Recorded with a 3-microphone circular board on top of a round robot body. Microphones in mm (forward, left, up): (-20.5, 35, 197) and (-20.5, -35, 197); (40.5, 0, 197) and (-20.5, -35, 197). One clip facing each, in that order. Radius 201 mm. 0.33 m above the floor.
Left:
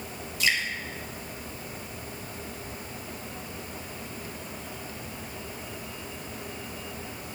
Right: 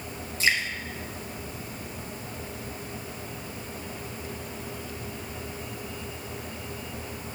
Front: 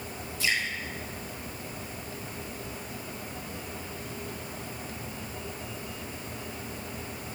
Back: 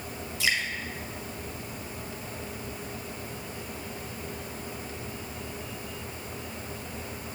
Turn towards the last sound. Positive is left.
turn(degrees=-150)